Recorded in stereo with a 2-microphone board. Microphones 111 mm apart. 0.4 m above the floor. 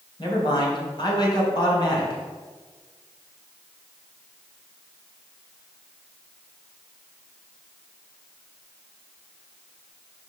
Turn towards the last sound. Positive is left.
turn(degrees=45)  # may be behind; listen again after turning